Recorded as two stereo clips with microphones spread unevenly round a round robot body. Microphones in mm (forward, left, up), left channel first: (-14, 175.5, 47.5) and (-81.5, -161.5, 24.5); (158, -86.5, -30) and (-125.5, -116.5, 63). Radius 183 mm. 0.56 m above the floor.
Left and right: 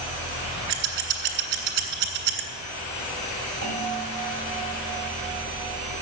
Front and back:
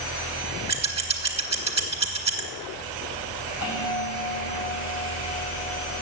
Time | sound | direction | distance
0.7 | scissors | 105° right | 2 m
3.6 | a bell | 35° right | 4 m